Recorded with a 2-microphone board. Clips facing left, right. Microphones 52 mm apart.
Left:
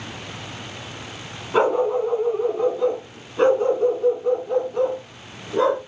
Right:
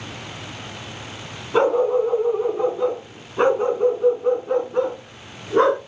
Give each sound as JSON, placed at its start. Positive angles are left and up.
{"t": 1.5, "sound": "a dog barking", "side_deg": 5, "distance_m": 2.5}